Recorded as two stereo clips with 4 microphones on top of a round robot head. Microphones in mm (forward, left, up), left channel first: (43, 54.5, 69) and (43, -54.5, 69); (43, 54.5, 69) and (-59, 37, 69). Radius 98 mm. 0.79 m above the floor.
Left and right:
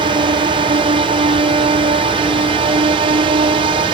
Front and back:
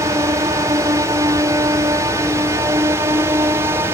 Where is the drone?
115° right; by 3.9 s 110° right.